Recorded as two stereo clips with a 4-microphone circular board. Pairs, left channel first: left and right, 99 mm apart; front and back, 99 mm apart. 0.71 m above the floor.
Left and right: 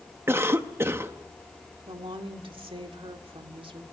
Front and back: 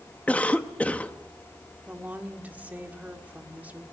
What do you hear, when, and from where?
0.3 s a cough: 60° right, 1.0 m
1.9 s a woman speaking: 105° right, 1.8 m